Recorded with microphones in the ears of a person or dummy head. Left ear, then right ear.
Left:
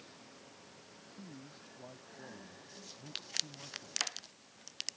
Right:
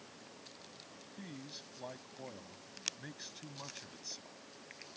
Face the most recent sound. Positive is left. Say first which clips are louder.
# right 5 dB
turn(degrees=-70)  # may be behind; listen again after turning